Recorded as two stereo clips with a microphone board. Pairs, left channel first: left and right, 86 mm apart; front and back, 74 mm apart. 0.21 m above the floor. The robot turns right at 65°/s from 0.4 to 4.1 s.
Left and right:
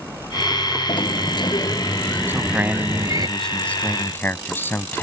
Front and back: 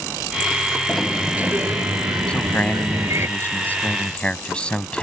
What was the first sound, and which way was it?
A sliding door, 80° left.